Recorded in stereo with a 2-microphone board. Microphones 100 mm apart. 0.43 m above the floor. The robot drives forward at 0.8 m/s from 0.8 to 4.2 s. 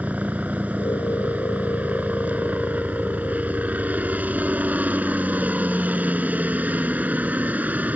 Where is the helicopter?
15° right (ahead or behind).